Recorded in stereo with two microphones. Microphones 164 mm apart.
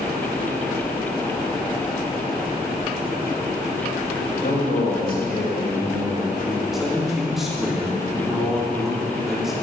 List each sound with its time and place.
4.4 s a man speaking: 70° left (ahead or behind), 4.5 m; by 6.6 s 55° left (ahead or behind), 4.5 m
6.7 s a man speaking: centre (ahead or behind), 4 m